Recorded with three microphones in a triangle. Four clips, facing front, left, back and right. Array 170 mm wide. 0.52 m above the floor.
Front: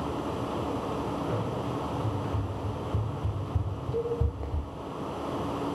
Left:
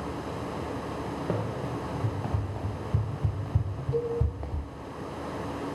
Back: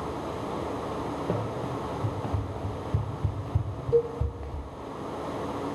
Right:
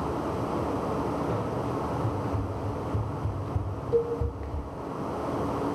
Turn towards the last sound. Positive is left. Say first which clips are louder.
# right 4 dB, back 6 dB
turn(degrees=-145)